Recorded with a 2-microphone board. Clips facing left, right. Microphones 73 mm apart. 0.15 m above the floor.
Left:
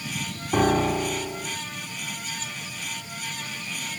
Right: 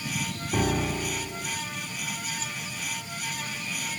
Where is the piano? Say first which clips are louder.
Left 6 dB; 45° left (ahead or behind).